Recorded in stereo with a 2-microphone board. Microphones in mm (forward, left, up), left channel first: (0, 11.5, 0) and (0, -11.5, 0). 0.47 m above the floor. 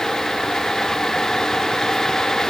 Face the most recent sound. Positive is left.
No sound to turn to.